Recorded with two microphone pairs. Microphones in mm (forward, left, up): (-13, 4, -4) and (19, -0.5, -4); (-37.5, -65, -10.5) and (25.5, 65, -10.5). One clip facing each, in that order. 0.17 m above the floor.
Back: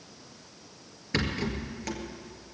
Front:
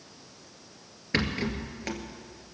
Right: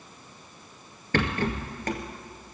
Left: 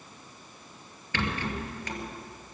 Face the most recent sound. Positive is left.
turn(degrees=-80)